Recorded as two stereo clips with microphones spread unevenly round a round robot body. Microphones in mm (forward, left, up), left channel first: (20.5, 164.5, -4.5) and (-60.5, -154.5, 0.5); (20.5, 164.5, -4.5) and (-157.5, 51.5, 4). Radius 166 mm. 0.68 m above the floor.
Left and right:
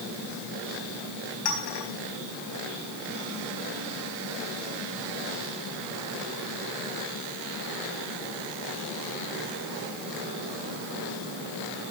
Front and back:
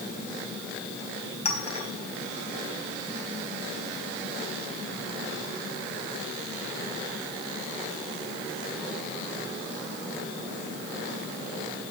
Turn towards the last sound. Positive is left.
turn(degrees=95)